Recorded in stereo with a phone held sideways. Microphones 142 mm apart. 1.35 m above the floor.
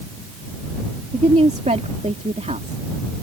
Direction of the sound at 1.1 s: 55° right (ahead or behind).